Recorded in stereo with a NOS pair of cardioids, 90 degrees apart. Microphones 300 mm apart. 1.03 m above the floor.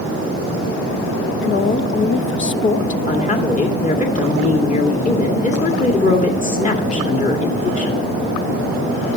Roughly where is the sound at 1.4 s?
Ahead left.